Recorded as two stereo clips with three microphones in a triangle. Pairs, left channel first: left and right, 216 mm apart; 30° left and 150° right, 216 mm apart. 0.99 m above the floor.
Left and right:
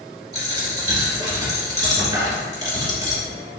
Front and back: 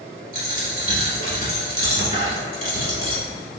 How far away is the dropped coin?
About 1.6 m.